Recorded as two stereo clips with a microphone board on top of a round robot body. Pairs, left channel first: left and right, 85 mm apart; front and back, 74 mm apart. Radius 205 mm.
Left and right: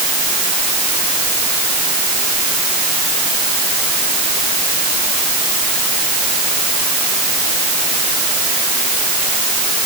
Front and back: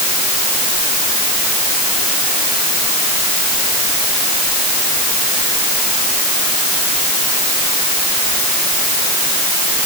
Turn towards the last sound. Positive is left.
No sound to turn to.